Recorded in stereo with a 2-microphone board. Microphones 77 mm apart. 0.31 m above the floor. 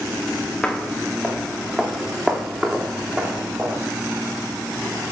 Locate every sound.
0.6 s footsteps: 10° left (ahead or behind), 3 m; by 3.8 s 15° right (ahead or behind), 5.5 m